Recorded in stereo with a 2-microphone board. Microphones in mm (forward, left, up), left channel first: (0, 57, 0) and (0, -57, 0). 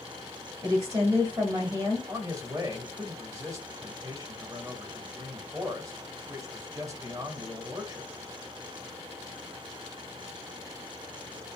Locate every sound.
0.6 s a woman speaking: 30° right (ahead or behind), 1.1 m
2.1 s a man speaking: 30° right (ahead or behind), 1.1 m